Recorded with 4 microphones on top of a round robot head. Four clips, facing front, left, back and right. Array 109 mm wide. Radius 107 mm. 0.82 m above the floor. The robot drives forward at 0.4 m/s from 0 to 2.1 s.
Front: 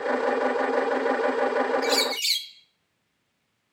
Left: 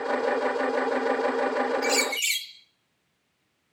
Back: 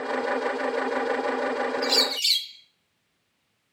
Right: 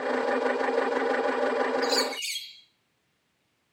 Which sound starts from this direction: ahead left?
A bird, at 1.8 s.